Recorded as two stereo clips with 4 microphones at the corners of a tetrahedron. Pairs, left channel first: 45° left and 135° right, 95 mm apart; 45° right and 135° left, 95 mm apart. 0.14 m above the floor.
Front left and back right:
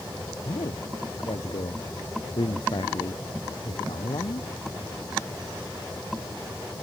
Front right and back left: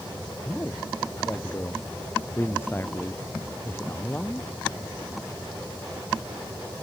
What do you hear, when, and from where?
0.5 s a man speaking: 20° left